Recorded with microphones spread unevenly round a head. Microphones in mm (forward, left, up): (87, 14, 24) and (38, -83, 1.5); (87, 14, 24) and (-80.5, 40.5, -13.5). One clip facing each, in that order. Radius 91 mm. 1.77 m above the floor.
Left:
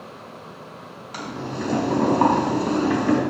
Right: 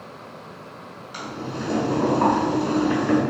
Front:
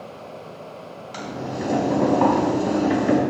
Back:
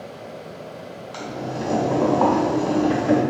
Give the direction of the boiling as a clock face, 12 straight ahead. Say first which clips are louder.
Left 1 dB, even; 10 o'clock.